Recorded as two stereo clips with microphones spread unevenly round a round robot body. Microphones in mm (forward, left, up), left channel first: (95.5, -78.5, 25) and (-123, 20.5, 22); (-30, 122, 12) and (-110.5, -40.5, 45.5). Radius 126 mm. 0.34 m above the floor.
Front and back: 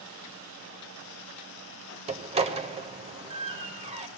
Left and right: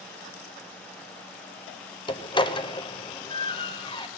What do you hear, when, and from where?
2.1 s a door slam: 100° left, 0.8 m